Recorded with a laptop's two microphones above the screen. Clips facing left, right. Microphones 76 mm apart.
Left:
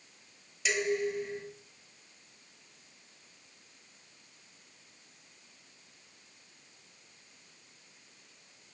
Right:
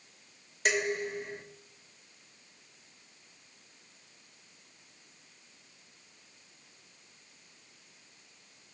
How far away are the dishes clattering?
About 1.5 m.